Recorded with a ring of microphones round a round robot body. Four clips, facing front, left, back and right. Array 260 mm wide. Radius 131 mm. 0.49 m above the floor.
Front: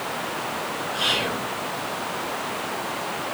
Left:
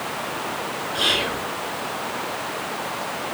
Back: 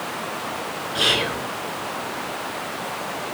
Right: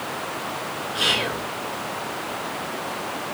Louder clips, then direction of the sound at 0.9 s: Even, back 4 dB; 175° left.